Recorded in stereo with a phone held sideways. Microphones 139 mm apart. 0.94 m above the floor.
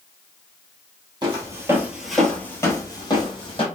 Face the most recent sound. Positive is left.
turn(degrees=40)  # may be behind; listen again after turning